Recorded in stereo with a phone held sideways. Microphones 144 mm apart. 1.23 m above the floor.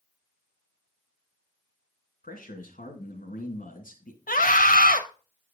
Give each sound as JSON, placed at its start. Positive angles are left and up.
{"t": 2.2, "sound": "a man speaking", "side_deg": 75, "distance_m": 2.0}
{"t": 4.3, "sound": "a scream", "side_deg": 80, "distance_m": 1.5}